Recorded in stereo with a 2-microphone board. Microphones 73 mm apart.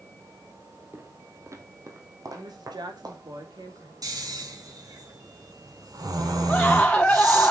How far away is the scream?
About 1.0 m.